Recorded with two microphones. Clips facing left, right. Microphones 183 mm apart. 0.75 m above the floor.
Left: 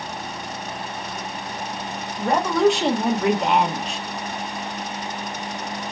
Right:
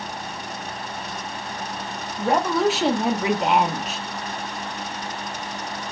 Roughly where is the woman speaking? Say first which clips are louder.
Left 2 dB; centre.